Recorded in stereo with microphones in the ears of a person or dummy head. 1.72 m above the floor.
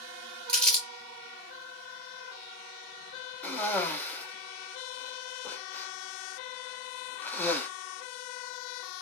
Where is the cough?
15° left (ahead or behind), 0.6 m.